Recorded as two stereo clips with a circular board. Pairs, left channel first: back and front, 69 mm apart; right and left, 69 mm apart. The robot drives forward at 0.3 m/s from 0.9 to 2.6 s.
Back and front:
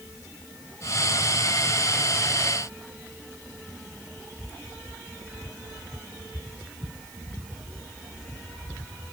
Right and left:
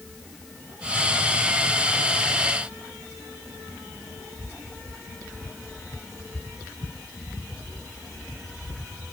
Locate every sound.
Only background noise.